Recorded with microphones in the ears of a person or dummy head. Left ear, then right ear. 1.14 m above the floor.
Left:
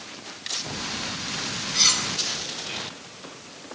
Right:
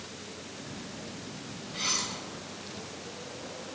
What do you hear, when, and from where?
1.7 s cutlery clinking: 40° left (ahead or behind), 4 m